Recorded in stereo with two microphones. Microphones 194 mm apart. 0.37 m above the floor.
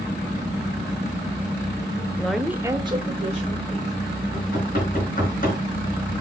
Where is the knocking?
45° left (ahead or behind), 4 m.